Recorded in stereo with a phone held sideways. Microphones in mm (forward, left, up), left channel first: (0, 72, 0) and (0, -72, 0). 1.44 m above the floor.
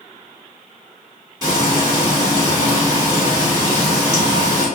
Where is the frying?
25° right (ahead or behind), 1.1 m.